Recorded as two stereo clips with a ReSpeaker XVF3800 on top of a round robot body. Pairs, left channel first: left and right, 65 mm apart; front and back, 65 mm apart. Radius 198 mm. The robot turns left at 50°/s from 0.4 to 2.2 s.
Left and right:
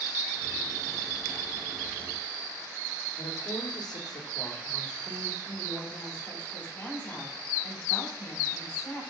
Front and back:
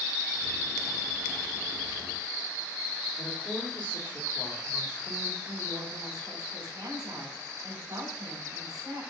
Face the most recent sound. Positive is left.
turn(degrees=150)